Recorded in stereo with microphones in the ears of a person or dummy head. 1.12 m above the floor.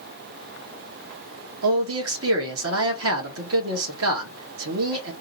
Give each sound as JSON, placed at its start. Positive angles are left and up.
{"t": 1.6, "sound": "a man speaking", "side_deg": -70, "distance_m": 2.0}